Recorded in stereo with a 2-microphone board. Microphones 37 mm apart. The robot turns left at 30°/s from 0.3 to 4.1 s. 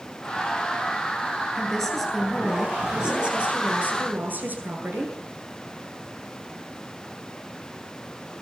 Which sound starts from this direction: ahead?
A woman speaking, at 1.6 s.